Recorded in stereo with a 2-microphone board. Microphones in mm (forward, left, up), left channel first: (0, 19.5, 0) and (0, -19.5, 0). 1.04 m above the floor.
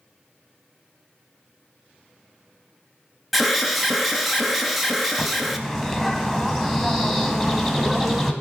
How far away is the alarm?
About 0.8 m.